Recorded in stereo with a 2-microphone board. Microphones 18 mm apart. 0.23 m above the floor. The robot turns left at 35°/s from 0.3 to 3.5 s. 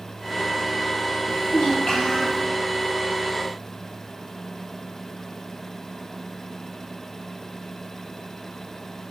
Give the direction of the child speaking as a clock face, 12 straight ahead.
8 o'clock.